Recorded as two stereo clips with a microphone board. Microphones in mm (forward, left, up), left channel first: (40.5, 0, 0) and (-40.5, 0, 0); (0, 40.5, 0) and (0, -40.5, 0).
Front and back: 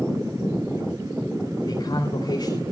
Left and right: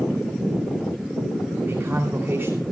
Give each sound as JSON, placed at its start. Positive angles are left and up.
{"t": 1.7, "sound": "a man speaking", "azimuth_deg": -25, "distance_m": 3.0}